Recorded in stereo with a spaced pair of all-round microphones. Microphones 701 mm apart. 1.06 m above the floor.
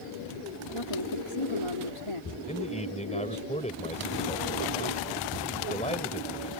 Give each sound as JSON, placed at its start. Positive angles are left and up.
{"t": 0.7, "sound": "a woman speaking", "side_deg": 45}
{"t": 2.5, "sound": "a man speaking", "side_deg": 10}